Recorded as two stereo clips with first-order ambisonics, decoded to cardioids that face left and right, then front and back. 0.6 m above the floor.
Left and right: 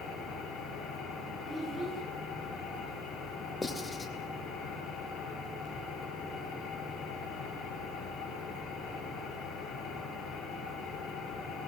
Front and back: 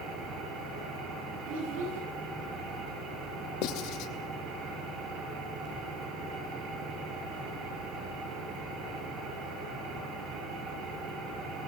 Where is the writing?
15° left, 2.5 m.